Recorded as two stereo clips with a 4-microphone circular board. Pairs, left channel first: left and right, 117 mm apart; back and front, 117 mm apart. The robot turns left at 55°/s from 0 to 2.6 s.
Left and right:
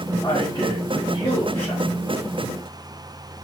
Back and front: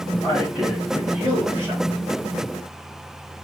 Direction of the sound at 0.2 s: 115° left.